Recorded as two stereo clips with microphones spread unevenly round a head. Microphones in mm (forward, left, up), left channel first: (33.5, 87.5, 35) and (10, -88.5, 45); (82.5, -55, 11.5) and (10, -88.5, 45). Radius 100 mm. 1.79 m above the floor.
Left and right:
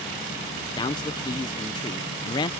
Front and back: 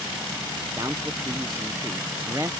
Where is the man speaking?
150° left.